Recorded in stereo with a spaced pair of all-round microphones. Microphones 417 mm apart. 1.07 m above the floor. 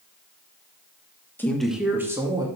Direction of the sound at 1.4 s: 5° left (ahead or behind).